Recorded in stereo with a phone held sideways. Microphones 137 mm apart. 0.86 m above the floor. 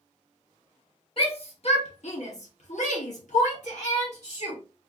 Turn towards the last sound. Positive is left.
turn(degrees=55)  # may be behind; listen again after turning